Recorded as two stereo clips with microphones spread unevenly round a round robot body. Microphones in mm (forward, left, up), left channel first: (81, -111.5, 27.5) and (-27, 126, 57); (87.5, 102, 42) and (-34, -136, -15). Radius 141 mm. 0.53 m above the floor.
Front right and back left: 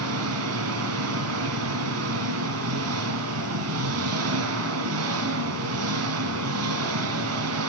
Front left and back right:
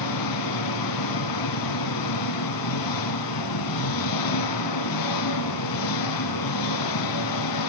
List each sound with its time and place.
0.0 s an engine running: 80° left, 1.9 m